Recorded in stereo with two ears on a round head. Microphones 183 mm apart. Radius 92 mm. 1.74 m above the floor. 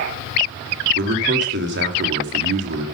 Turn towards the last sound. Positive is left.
turn(degrees=-60)  # may be behind; listen again after turning